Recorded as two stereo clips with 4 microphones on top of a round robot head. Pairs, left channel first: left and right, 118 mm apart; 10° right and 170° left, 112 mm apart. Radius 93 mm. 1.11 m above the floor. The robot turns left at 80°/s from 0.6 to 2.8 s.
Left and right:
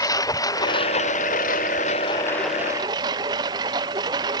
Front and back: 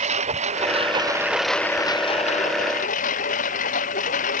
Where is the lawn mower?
150° left; by 4.4 s 25° right.